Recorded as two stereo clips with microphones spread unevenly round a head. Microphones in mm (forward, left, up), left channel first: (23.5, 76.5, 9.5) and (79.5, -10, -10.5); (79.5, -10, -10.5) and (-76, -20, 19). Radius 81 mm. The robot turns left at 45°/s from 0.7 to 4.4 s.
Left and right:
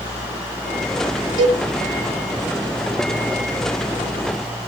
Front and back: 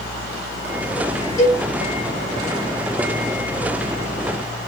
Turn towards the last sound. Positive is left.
turn(degrees=-60)